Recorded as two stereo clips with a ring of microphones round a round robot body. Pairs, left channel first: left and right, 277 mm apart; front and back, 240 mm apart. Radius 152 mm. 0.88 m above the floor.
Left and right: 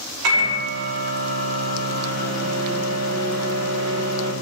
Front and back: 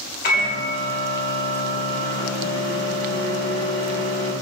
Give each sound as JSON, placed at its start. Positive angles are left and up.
{"t": 0.2, "sound": "a microwave", "azimuth_deg": -55, "distance_m": 2.5}